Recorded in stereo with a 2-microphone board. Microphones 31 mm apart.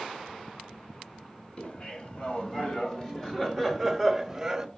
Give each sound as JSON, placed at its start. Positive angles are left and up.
{"t": 1.6, "sound": "laughter", "side_deg": 35, "distance_m": 3.0}